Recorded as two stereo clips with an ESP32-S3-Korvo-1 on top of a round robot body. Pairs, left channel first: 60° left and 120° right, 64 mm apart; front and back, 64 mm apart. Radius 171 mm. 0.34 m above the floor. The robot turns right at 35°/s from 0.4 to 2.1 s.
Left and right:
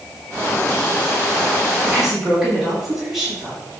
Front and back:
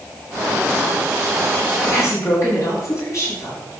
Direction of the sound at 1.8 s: 45° right.